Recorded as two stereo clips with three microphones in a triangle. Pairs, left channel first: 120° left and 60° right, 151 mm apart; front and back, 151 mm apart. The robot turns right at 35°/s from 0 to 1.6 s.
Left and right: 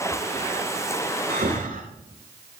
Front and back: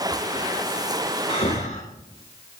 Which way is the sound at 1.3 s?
50° right.